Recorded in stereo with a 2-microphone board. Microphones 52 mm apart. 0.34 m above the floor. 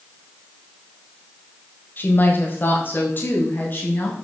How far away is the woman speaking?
About 1.3 m.